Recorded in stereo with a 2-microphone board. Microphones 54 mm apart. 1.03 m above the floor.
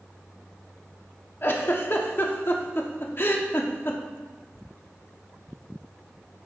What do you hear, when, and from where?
1.4 s a giggle: 45° left (ahead or behind), 0.7 m